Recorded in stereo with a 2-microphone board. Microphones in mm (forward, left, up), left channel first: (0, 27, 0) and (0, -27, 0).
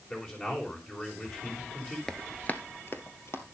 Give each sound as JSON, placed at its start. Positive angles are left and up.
{"t": 0.1, "sound": "a man speaking", "side_deg": 30, "distance_m": 4.5}
{"t": 2.1, "sound": "running footsteps", "side_deg": 10, "distance_m": 1.0}